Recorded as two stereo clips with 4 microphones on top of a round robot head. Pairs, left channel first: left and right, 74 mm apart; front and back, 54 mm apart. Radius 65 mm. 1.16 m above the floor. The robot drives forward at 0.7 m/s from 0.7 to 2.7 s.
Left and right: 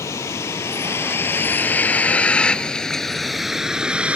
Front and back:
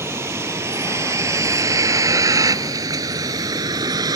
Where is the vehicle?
140° left; by 4.2 s 165° right.